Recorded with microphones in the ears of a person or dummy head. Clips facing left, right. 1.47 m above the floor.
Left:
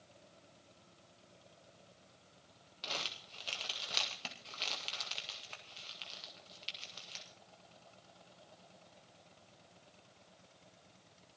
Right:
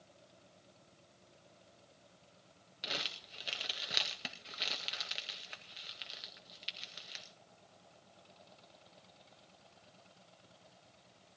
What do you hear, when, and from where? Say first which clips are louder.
2.8 s crumpling: right 1 dB; 20° right (ahead or behind), 1.9 m